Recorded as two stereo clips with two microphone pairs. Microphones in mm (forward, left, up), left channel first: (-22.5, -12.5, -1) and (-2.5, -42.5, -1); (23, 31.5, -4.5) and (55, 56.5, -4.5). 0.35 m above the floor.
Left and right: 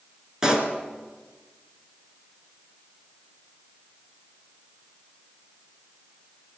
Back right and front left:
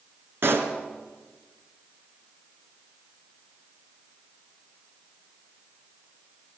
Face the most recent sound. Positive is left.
turn(degrees=20)